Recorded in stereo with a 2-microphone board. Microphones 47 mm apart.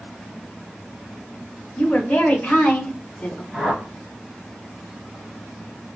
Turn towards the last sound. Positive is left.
turn(degrees=-10)  # may be behind; listen again after turning